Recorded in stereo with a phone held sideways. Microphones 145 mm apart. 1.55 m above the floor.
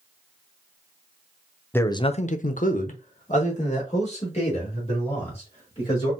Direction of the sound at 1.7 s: 15° left (ahead or behind).